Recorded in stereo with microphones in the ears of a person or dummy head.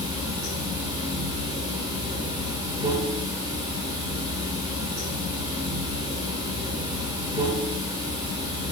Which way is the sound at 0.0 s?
25° right (ahead or behind).